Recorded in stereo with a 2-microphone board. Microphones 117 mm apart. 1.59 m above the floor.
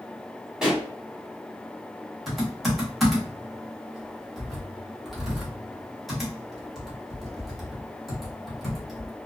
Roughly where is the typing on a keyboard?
Centre.